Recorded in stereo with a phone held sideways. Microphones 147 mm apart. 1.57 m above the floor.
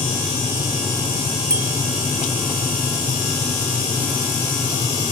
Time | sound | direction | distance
1.5 | a bicycle bell | 80° right | ?